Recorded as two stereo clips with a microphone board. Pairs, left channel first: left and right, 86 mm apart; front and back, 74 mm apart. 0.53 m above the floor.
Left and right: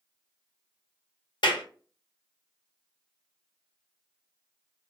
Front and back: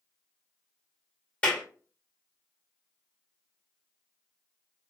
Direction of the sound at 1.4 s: 70° left.